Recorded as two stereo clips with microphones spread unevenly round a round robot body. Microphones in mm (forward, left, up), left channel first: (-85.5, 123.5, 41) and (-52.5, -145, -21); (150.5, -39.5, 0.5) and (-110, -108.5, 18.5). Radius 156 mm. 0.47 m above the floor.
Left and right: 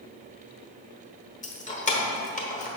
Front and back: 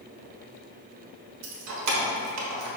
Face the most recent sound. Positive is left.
turn(degrees=165)